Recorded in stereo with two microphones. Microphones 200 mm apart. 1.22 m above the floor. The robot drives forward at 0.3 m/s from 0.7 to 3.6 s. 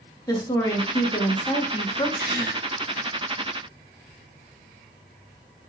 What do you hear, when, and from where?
0.3 s a woman speaking: 20° left (ahead or behind), 1.1 m; by 2.1 s 30° left (ahead or behind), 0.8 m
2.2 s a gasp: 65° right (ahead or behind), 3 m; by 2.6 s 60° right (ahead or behind), 3 m